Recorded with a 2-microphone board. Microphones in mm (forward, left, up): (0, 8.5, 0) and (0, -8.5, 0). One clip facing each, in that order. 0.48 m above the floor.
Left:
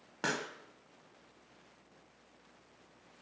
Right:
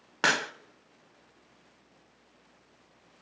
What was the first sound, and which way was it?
A pop, 40° right (ahead or behind).